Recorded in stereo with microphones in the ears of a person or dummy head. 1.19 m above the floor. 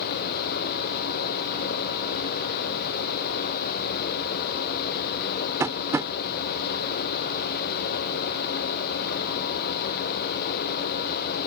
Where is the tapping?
10° right (ahead or behind).